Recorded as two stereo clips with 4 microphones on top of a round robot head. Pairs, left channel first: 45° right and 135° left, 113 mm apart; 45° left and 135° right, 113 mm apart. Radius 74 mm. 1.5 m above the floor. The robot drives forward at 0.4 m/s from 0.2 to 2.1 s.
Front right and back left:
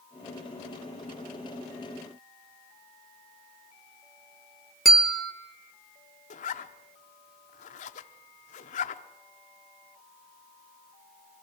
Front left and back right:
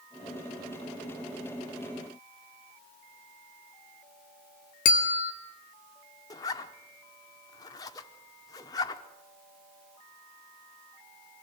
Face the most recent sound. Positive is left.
turn(degrees=-15)